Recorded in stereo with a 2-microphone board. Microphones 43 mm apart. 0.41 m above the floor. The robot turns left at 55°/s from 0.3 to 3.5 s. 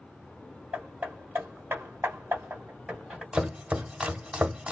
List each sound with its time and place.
0.7 s hammering: 20° right (ahead or behind), 1.6 m; by 3.2 s 15° right (ahead or behind), 1.6 m
3.3 s chopping: 15° right (ahead or behind), 0.8 m; by 4.7 s 25° right (ahead or behind), 0.8 m